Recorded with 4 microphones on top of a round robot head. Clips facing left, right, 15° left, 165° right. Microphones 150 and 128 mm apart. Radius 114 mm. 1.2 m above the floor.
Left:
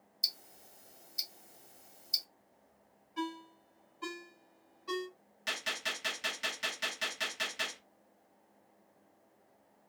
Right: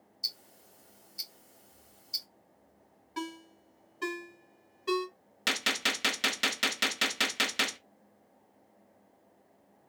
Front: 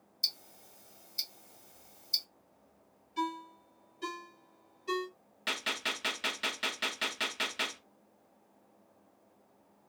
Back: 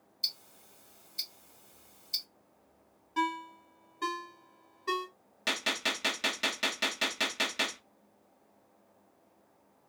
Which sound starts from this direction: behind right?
A ringtone, at 3.2 s.